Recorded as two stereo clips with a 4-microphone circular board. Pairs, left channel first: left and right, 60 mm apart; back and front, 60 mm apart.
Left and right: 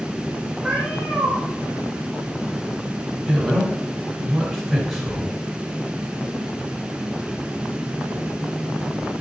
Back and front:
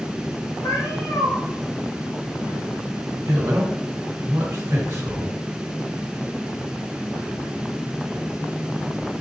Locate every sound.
0.6 s a cat meowing: 160° right, 1.8 m
3.3 s a man speaking: 5° right, 1.4 m